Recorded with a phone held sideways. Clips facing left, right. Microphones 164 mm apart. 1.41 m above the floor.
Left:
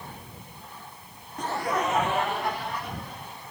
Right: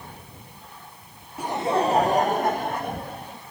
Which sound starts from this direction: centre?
Laughter, at 1.4 s.